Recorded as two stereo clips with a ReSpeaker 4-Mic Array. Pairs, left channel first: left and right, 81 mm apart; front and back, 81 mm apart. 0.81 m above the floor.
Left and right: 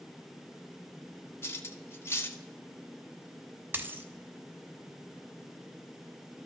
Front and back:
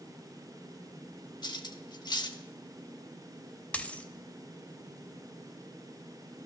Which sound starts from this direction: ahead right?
A dropped coin, at 3.7 s.